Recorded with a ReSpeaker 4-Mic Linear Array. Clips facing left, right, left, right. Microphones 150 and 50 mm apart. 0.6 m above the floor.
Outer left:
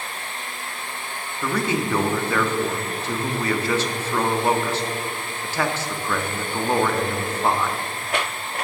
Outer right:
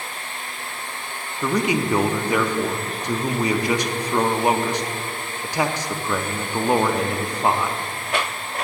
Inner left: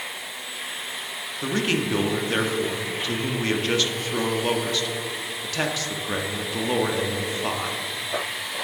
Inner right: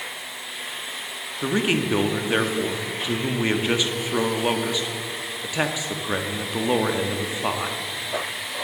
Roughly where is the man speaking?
Centre.